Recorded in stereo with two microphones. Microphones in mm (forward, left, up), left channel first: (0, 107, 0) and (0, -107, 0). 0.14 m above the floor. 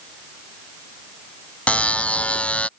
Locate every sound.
1.7 s a buzzer: 5° left (ahead or behind)